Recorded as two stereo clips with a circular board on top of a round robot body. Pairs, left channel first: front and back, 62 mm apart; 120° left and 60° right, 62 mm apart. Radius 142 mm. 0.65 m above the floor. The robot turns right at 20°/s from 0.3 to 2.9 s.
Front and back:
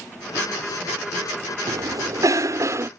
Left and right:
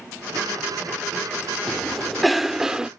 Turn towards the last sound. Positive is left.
turn(degrees=-140)